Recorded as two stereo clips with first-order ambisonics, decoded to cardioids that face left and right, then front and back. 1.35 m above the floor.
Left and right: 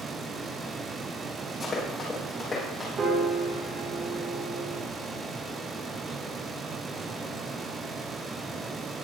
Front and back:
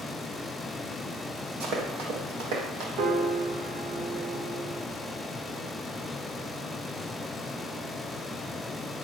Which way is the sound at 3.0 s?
150° right.